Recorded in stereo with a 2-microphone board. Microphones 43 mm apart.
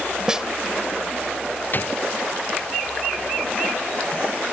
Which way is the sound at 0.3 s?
15° right (ahead or behind).